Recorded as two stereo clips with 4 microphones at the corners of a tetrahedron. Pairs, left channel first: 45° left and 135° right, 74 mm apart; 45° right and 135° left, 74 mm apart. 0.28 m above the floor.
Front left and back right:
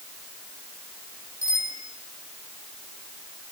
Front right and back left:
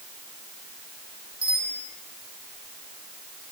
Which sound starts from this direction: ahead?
A bicycle bell, at 1.4 s.